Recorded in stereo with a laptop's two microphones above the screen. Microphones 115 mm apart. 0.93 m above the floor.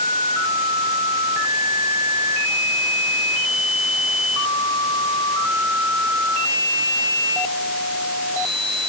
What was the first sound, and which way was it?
Only background noise.